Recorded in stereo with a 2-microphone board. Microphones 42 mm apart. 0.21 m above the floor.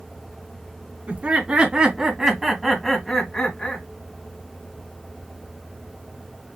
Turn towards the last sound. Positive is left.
turn(degrees=25)  # may be behind; listen again after turning